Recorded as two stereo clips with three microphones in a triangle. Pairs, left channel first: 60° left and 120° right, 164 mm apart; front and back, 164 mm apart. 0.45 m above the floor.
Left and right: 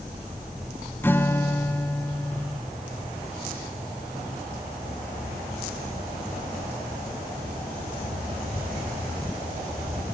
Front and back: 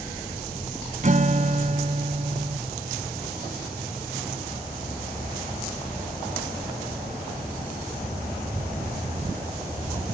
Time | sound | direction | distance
1.0 | a guitar | 135° left | 0.9 m